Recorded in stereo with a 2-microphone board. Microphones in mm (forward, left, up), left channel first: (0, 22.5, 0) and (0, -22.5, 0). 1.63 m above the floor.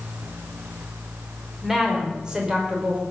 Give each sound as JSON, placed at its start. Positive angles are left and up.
{"t": 1.6, "sound": "a woman speaking", "side_deg": -10, "distance_m": 5.0}